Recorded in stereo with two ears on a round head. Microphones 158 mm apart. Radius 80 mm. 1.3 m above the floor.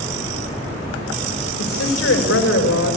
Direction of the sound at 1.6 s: 80° left.